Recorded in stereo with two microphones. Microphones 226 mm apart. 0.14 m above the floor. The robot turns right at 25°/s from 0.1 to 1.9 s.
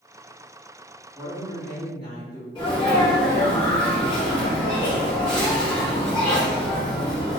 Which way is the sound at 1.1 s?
5° left (ahead or behind).